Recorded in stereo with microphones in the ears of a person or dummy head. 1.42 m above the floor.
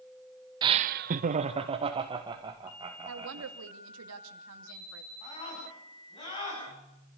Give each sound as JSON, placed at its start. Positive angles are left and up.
{"t": 0.6, "sound": "laughter", "side_deg": -25, "distance_m": 0.6}
{"t": 3.1, "sound": "a woman speaking", "side_deg": -75, "distance_m": 2.5}
{"t": 5.2, "sound": "a scream", "side_deg": 35, "distance_m": 10.0}